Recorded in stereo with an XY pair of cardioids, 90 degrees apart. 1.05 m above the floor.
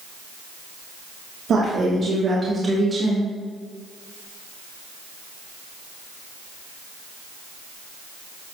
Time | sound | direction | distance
1.5 | a woman speaking | 55° right | 3 m